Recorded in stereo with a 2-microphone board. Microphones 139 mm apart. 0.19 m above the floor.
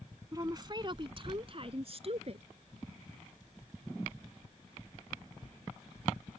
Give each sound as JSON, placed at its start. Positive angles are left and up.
{"t": 0.3, "sound": "a woman speaking", "side_deg": -25}